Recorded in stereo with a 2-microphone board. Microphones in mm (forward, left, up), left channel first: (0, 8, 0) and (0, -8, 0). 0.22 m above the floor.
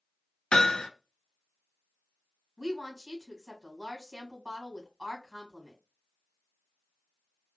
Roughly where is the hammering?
Left.